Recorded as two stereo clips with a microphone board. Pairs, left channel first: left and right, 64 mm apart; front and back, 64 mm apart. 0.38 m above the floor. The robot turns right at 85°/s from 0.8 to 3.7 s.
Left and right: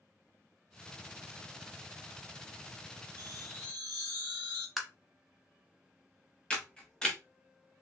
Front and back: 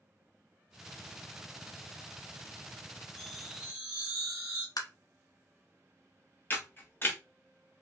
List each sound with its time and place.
3.2 s a chime: 70° left, 1.4 m; by 4.7 s 115° left, 1.4 m
4.8 s tapping: straight ahead, 0.6 m
6.5 s a camera shutter: 20° left, 0.7 m